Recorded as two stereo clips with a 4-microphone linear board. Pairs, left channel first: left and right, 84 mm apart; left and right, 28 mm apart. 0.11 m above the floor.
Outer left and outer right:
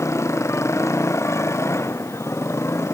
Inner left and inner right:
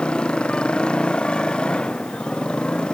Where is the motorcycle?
30° left (ahead or behind).